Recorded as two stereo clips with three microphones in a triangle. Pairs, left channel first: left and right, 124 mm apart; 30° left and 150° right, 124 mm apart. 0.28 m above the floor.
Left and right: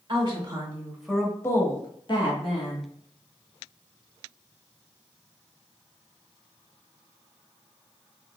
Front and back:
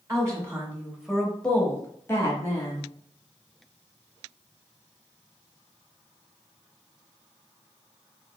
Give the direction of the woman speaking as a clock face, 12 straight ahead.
3 o'clock.